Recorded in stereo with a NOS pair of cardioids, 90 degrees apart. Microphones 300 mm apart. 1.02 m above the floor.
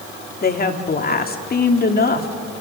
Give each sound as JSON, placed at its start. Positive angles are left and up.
{"t": 0.4, "sound": "a woman speaking", "azimuth_deg": 30, "distance_m": 2.0}